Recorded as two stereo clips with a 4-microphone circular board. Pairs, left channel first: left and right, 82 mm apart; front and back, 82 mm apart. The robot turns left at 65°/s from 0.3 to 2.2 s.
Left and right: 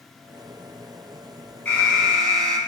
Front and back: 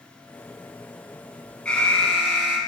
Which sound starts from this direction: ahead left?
An alarm, at 1.6 s.